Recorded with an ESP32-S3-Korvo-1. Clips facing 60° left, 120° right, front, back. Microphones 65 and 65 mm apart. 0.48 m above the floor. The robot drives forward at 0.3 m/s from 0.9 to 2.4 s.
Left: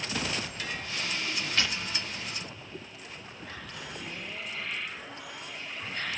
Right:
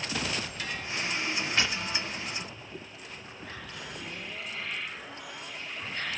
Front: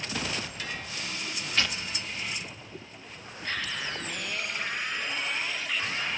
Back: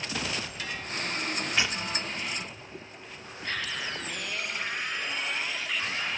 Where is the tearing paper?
135° right, 0.7 m; by 3.7 s 160° right, 0.8 m.